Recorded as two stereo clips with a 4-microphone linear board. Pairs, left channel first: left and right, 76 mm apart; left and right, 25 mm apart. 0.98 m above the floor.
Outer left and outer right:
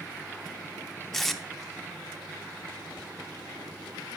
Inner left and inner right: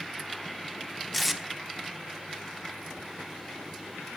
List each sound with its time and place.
1.1 s tape being pulled: 5° left (ahead or behind), 0.8 m